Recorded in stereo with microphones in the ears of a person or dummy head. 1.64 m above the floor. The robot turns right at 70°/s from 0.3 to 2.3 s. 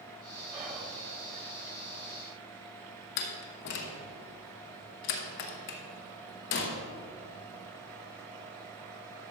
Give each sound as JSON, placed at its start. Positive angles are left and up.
{"t": 0.5, "sound": "whispering", "side_deg": -20, "distance_m": 4.5}
{"t": 3.2, "sound": "a door slam", "side_deg": 45, "distance_m": 1.1}